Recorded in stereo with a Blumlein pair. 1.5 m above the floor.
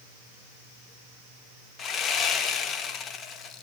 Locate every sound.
1.8 s sawing: 30° left, 0.7 m